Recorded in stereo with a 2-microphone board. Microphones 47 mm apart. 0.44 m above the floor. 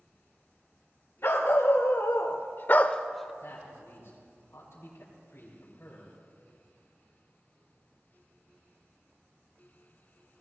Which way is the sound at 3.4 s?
65° left (ahead or behind).